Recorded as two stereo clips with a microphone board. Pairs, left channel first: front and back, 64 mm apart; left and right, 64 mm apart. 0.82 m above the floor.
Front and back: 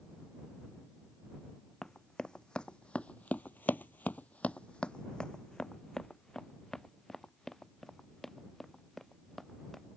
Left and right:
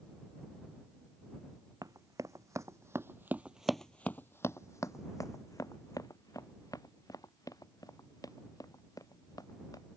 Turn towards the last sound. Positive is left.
turn(degrees=85)